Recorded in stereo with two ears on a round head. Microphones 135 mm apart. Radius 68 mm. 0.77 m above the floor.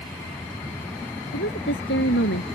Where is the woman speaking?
80° left.